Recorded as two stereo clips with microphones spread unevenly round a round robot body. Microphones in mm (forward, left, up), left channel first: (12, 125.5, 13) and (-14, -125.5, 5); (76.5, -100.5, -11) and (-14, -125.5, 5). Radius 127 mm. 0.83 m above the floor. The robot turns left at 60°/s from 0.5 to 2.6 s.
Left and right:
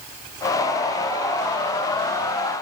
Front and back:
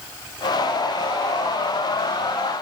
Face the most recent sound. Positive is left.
No sound to turn to.